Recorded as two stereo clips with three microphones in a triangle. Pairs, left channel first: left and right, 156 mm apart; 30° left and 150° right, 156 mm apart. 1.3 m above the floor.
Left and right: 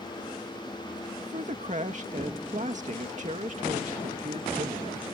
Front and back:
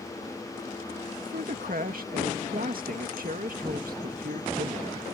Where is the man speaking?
130° right.